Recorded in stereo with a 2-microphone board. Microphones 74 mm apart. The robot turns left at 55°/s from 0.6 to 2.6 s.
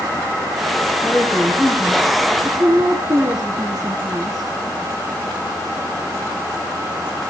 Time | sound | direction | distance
1.0 | a woman speaking | 20° left | 3 m